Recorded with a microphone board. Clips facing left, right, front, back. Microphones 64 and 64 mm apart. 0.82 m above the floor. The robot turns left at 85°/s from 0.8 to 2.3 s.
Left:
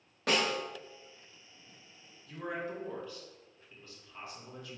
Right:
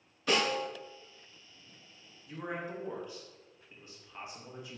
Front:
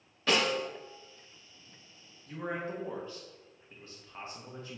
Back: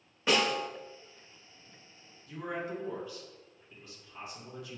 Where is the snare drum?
110° left, 1.3 m.